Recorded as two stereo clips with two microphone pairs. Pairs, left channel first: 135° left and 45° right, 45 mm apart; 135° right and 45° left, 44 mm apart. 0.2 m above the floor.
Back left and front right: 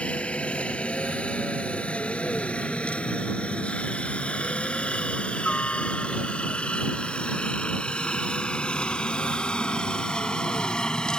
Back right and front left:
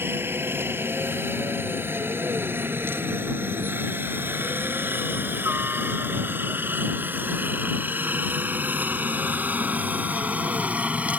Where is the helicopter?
75° left.